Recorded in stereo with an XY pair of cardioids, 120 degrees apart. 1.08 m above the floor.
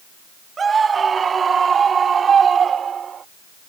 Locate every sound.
0.6 s a scream: 30° right; by 3.2 s 40° right